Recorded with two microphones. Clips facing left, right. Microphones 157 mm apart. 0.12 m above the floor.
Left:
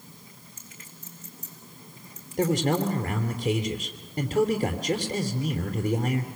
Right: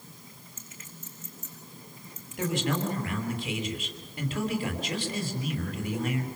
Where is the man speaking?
40° left (ahead or behind), 3.5 m.